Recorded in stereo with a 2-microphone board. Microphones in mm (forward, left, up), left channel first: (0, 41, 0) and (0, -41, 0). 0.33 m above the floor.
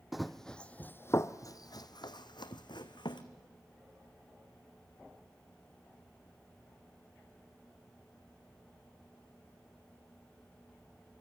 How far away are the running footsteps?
About 0.9 m.